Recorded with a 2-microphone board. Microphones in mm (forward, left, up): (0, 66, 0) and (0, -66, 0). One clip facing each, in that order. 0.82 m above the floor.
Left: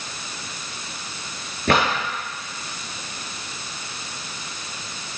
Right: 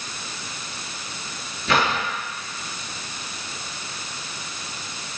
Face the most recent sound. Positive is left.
turn(degrees=65)  # may be behind; listen again after turning